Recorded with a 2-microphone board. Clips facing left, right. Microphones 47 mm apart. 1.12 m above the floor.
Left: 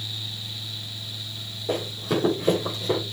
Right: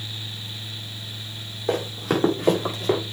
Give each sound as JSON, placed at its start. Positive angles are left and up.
{"t": 1.7, "sound": "running footsteps", "side_deg": -75, "distance_m": 5.0}